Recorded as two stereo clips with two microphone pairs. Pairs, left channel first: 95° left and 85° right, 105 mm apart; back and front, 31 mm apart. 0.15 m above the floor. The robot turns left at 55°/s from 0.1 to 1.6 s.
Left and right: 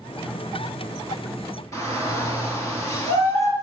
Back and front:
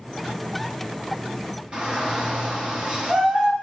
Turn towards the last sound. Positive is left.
turn(degrees=45)